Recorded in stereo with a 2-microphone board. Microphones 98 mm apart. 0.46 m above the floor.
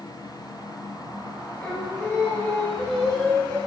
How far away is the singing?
About 5 m.